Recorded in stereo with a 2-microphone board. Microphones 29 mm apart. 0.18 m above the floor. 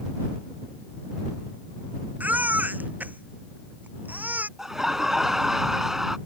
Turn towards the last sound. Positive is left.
turn(degrees=-15)  # may be behind; listen again after turning